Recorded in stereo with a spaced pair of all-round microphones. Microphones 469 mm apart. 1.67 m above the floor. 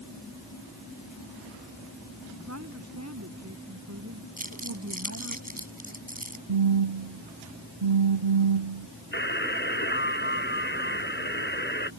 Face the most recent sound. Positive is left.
turn(degrees=20)  # may be behind; listen again after turning